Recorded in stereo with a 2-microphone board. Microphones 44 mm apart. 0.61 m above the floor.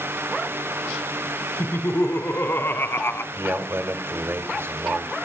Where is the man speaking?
65° right (ahead or behind), 1.8 m.